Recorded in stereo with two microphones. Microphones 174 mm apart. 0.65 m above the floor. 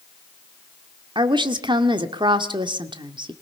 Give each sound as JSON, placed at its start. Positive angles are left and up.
{"t": 1.1, "sound": "a woman speaking", "side_deg": -25, "distance_m": 1.7}